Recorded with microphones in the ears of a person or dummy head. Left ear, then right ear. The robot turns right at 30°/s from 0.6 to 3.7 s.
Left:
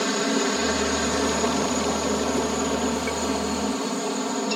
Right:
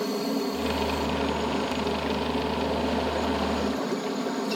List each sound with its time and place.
0.0 s a helicopter: 65° left; by 4.6 s 155° left